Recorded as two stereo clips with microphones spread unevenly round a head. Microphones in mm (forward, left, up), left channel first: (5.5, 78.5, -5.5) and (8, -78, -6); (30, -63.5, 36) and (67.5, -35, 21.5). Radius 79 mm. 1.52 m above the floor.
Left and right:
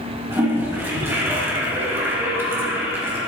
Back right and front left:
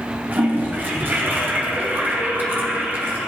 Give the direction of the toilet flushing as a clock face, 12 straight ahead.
12 o'clock.